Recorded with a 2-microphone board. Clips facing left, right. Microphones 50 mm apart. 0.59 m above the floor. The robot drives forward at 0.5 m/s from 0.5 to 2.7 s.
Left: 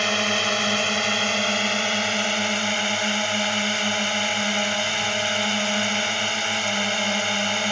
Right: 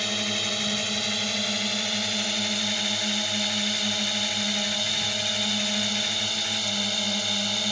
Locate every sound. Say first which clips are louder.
0.0 s a drone: left 7 dB; 55° left (ahead or behind); by 7.7 s 45° left (ahead or behind)